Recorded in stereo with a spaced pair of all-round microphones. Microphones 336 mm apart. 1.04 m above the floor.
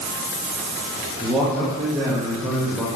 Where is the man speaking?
5° right (ahead or behind), 1.0 m.